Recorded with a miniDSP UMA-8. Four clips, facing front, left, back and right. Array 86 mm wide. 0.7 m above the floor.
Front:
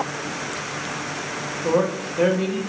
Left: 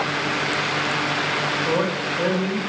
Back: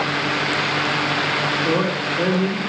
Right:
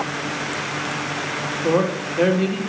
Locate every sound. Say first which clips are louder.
1.6 s a man speaking: right 7 dB, front 5 dB; 85° right, 2 m